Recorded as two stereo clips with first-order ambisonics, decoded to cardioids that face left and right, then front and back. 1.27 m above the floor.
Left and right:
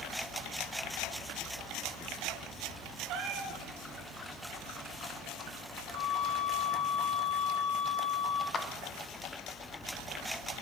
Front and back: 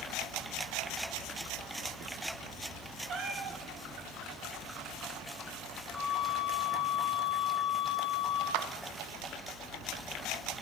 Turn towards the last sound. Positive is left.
turn(degrees=160)